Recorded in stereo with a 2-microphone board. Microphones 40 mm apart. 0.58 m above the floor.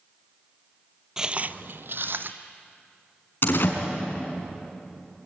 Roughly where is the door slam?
Left.